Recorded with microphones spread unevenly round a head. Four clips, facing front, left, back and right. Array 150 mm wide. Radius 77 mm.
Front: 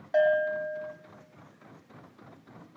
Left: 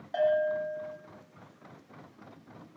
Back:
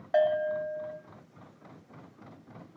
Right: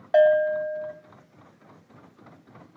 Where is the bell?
70° right, 1.1 m.